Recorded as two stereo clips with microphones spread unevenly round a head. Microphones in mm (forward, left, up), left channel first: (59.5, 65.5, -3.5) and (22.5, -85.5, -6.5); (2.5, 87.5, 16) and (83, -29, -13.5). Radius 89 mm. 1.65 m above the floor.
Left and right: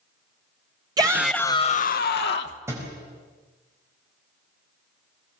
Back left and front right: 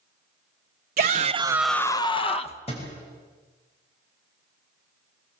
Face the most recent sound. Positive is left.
turn(degrees=180)